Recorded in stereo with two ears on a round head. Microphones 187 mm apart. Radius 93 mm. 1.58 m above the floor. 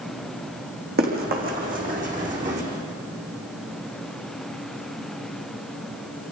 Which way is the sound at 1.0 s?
45° right (ahead or behind).